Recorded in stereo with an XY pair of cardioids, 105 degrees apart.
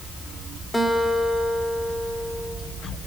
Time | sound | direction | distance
0.7 | a guitar | 10° left | 3 m